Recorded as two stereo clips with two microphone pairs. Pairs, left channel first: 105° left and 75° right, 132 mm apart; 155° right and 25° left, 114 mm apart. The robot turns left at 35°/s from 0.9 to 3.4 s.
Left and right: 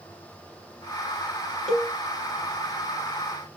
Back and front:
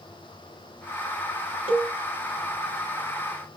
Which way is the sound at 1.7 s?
20° left.